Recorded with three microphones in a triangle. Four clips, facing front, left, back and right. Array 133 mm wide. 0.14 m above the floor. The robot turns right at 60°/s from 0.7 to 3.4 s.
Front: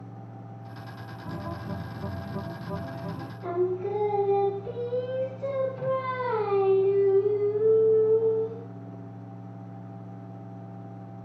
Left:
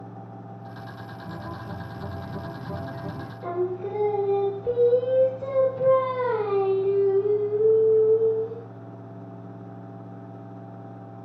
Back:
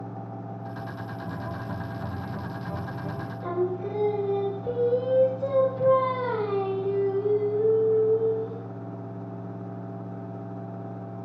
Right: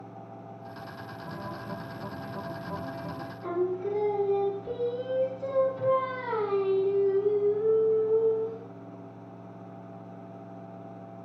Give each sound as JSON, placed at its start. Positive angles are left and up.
{"t": 1.3, "sound": "a guitar", "azimuth_deg": 5, "distance_m": 2.5}
{"t": 3.4, "sound": "singing", "azimuth_deg": 110, "distance_m": 3.0}